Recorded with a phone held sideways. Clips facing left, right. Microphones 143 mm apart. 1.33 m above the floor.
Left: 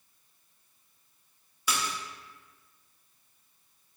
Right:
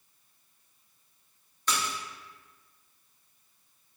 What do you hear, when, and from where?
1.7 s a splash: 10° left (ahead or behind), 0.8 m